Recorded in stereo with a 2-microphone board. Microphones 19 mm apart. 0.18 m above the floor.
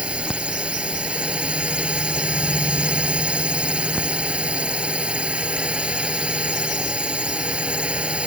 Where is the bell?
No bell in this recording.